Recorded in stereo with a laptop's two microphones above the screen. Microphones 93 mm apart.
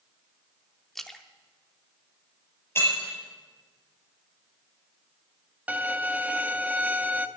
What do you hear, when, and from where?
0.9 s a splash: centre (ahead or behind), 0.6 m
2.8 s breaking glass: 25° left (ahead or behind), 5 m
5.7 s a violin: 15° right (ahead or behind), 0.7 m